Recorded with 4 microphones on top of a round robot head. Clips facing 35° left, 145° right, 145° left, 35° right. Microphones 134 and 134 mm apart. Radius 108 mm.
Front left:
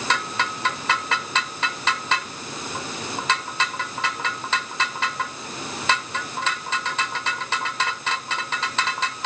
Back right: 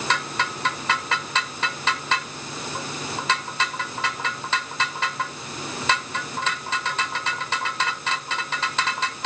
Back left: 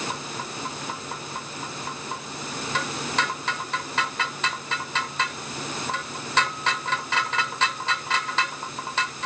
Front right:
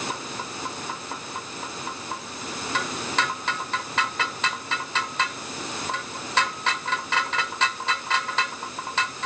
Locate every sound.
Only background noise.